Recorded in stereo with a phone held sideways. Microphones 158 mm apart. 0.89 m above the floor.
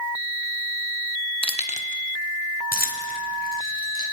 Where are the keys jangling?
35° left (ahead or behind), 0.9 m; by 4.0 s 75° left (ahead or behind), 4.5 m.